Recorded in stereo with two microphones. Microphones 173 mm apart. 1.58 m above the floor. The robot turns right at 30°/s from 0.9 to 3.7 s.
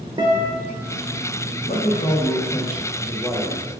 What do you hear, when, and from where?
0.2 s a guitar: 30° right (ahead or behind), 0.7 m
1.7 s a man speaking: 115° left, 0.9 m; by 3.7 s 175° left, 0.9 m